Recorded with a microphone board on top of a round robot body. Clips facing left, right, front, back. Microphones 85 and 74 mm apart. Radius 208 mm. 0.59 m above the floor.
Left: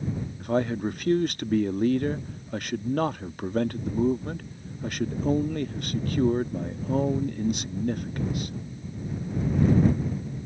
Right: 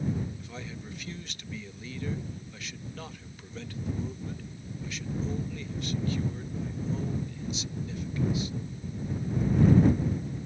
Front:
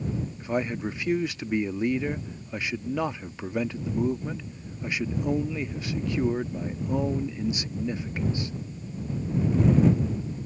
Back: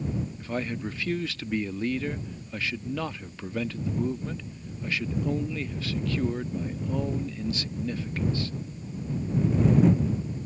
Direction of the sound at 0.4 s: 70° left.